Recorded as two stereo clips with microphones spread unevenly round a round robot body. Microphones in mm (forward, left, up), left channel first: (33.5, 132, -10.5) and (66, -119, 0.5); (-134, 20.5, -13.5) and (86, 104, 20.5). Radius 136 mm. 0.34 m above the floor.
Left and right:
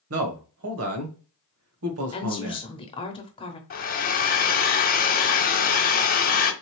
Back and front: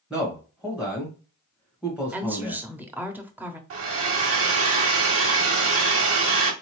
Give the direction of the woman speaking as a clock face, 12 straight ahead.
8 o'clock.